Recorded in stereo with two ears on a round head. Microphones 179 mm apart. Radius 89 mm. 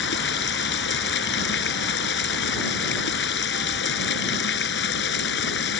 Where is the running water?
60° left (ahead or behind).